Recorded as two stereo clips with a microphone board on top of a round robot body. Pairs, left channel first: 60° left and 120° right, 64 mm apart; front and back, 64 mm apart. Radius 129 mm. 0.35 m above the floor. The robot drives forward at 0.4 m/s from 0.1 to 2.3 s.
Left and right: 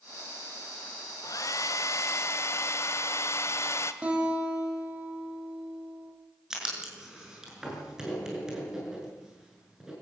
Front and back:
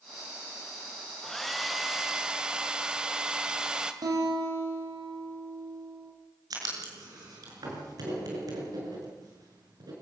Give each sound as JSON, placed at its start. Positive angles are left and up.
{"t": 1.2, "sound": "a hair dryer", "azimuth_deg": 85, "distance_m": 1.4}
{"t": 4.0, "sound": "a guitar", "azimuth_deg": 170, "distance_m": 7.0}
{"t": 6.5, "sound": "writing", "azimuth_deg": 160, "distance_m": 6.5}